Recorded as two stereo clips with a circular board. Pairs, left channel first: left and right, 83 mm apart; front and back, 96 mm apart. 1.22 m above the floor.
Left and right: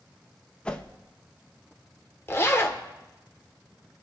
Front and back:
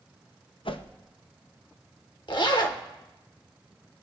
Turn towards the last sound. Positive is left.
turn(degrees=35)